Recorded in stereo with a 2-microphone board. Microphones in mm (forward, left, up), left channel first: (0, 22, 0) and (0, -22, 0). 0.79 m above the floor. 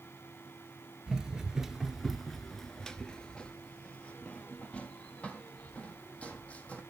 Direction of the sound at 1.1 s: 15° right (ahead or behind).